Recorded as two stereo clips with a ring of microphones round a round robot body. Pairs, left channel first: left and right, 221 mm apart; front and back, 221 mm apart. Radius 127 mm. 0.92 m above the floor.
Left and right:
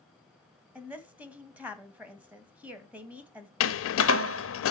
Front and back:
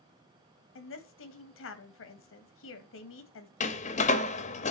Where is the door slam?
65° left, 0.6 m.